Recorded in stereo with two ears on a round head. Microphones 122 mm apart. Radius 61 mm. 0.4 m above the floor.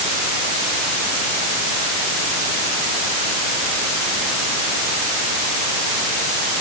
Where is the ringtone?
No ringtone in this recording.